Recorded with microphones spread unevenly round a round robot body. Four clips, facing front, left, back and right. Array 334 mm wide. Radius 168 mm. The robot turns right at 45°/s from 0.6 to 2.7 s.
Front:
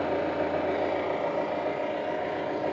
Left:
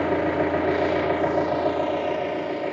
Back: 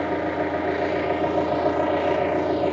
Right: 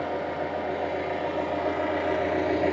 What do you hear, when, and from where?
0.0 s an engine running: 110° left, 0.9 m; by 2.7 s 155° right, 0.9 m